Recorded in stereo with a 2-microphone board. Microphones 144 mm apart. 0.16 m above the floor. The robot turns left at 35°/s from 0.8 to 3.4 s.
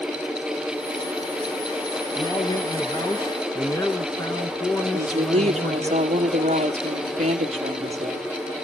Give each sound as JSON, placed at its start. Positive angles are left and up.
{"t": 2.1, "sound": "a man speaking", "azimuth_deg": 85, "distance_m": 1.5}
{"t": 4.9, "sound": "a woman speaking", "side_deg": -45, "distance_m": 3.5}